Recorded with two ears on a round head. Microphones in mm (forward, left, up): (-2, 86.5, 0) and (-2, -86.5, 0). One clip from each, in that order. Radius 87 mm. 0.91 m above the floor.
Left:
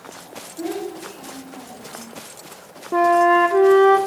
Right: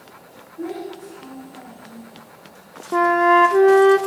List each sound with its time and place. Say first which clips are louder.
0.6 s a child speaking: left 2 dB; 45° left (ahead or behind), 3.5 m
2.9 s a flute: even; 10° right (ahead or behind), 0.6 m